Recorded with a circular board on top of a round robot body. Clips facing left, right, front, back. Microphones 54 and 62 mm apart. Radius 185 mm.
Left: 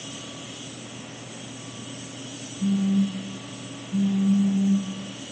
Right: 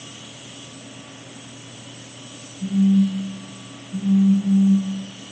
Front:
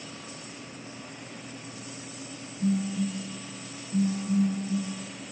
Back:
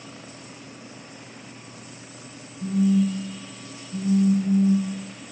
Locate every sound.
2.6 s a phone buzzing: 20° left, 1.7 m